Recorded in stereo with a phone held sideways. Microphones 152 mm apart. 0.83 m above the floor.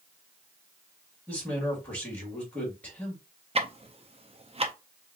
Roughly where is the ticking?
Right.